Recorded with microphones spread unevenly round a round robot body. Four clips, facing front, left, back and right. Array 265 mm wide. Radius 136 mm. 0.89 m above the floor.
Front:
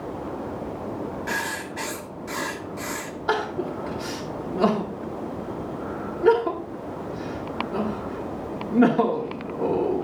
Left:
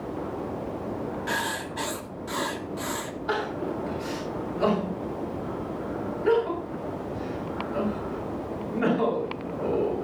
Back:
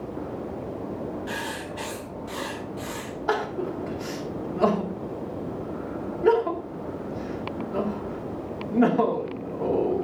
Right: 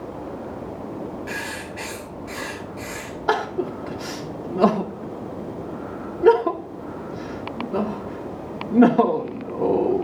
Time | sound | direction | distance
1.3 | writing | 50° left | 1.2 m
3.3 | crying | 75° right | 2 m